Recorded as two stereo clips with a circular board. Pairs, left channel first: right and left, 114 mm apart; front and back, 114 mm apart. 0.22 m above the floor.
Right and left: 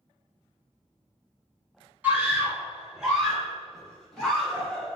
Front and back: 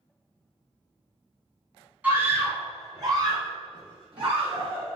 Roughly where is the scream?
Behind left.